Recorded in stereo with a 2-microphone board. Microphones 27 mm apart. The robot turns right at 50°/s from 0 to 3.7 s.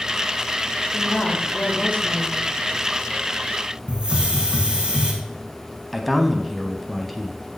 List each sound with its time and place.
0.9 s a woman speaking: 10° left, 5.5 m; by 2.5 s 85° left, 5.5 m
3.9 s a hiss: 30° right (ahead or behind), 2.5 m
5.9 s a man speaking: 5° left (ahead or behind), 1.2 m